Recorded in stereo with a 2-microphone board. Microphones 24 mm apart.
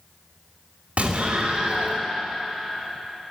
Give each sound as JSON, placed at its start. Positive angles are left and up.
{"t": 1.0, "sound": "an explosion", "side_deg": -65, "distance_m": 2.0}